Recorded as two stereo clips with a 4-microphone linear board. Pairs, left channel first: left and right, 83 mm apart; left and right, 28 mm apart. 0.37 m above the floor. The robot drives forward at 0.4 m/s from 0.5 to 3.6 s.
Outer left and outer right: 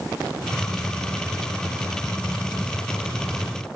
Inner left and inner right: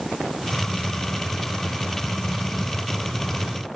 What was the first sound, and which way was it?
Only background noise.